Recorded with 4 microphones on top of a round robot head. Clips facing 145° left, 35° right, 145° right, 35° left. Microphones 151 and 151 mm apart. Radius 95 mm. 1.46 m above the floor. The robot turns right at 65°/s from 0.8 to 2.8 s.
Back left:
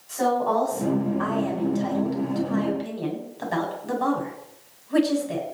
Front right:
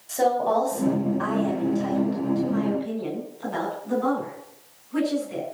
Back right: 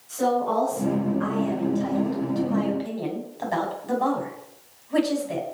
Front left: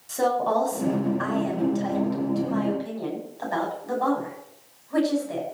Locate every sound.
0.1 s a woman speaking: 15° left, 7.5 m; by 5.4 s 145° left, 7.5 m